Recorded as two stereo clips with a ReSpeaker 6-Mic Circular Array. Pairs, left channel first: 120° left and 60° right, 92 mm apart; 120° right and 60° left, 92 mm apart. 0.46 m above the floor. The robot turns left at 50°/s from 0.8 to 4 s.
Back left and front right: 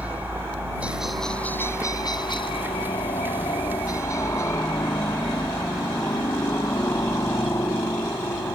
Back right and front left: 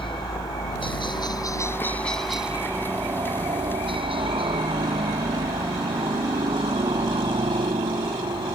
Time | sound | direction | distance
0.0 | a helicopter | 135° right | ?